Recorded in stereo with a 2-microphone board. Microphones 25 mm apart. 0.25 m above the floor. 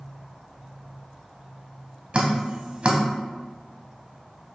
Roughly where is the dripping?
Right.